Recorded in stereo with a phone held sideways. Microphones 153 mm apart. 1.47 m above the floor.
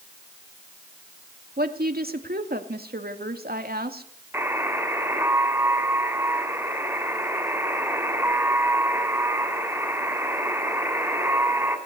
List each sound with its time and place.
1.6 s a woman speaking: 85° right, 2.5 m
4.3 s a buzzer: 15° right (ahead or behind), 3.5 m